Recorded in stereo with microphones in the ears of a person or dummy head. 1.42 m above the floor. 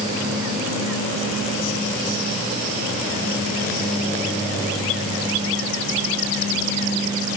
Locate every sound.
Only background noise.